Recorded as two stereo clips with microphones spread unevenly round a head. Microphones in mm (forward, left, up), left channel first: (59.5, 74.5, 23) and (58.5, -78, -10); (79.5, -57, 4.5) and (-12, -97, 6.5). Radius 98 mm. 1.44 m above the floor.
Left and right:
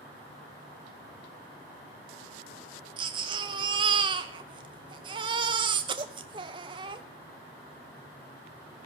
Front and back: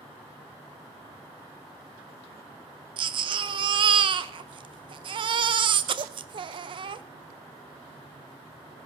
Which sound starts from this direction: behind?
A baby crying, at 3.0 s.